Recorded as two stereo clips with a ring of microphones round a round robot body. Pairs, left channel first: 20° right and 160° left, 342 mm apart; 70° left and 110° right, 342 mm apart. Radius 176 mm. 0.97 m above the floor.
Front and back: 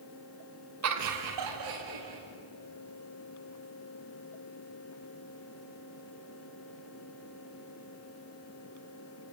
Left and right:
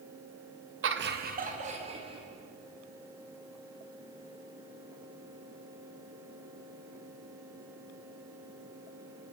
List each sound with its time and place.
0.8 s laughter: 165° right, 1.6 m; by 2.2 s 170° left, 3 m